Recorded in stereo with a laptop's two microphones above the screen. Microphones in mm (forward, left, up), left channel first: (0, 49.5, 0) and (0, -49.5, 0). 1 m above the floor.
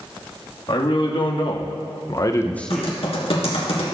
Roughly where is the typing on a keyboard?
Left.